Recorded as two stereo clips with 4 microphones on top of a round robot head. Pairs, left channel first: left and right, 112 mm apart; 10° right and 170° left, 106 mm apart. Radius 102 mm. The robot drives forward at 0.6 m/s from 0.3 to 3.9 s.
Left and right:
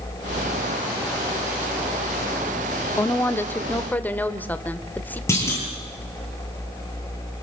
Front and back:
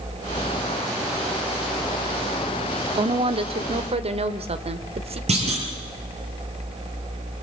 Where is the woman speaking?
155° left, 1.2 m; by 5.2 s 165° left, 1.6 m.